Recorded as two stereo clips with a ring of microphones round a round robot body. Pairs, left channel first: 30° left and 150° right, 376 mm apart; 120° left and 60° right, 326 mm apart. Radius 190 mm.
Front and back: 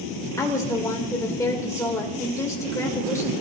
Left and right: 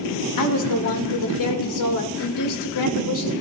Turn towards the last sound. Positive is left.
turn(degrees=110)